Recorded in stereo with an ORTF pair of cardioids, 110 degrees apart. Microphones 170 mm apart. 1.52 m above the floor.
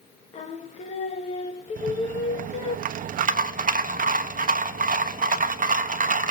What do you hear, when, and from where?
0.3 s singing: 40° left, 2 m
1.8 s a rattle: 55° right, 1.3 m